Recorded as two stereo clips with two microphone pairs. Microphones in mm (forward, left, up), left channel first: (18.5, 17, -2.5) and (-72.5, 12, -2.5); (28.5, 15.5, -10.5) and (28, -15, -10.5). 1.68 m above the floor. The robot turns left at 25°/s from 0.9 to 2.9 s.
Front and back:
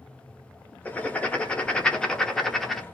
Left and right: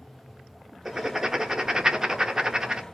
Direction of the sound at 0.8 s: 40° right.